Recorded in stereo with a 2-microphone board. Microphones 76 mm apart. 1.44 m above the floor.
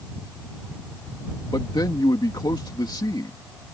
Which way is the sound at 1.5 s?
70° left (ahead or behind).